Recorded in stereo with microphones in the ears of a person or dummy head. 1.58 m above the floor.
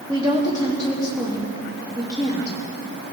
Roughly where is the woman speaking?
Right.